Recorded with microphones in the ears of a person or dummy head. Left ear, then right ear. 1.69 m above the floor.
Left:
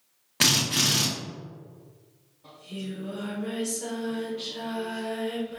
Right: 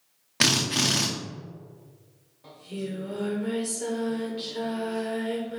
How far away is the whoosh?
No whoosh in this recording.